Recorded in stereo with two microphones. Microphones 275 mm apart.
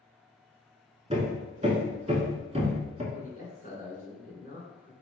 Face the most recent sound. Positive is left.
turn(degrees=30)  # may be behind; listen again after turning